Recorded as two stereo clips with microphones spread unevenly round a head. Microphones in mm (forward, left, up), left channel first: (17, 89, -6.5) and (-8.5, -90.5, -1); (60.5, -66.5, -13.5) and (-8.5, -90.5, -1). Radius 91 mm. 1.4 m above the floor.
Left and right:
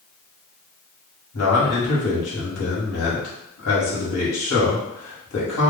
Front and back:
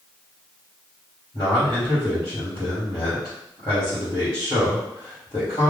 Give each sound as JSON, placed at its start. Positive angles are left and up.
{"t": 1.3, "sound": "a man speaking", "azimuth_deg": 90, "distance_m": 1.7}